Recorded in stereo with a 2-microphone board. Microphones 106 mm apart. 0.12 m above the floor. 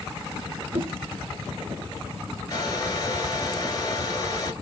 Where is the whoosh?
75° right (ahead or behind), 1.3 m.